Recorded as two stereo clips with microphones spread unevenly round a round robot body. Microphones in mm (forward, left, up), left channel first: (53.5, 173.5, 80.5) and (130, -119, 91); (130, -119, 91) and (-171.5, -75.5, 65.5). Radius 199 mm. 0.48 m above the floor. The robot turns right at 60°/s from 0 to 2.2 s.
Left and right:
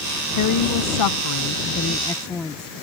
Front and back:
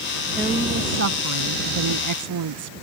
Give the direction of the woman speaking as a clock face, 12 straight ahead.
9 o'clock.